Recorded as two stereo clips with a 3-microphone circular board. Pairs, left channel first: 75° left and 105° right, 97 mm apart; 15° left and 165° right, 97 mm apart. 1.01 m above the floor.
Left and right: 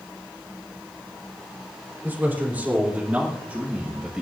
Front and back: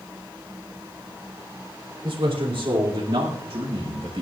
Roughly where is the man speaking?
Behind.